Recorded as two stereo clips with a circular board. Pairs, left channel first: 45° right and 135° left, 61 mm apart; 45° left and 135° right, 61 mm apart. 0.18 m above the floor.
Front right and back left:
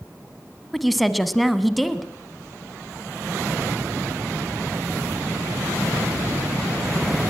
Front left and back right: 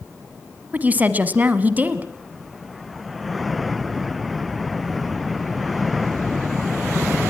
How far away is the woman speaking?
About 1.1 m.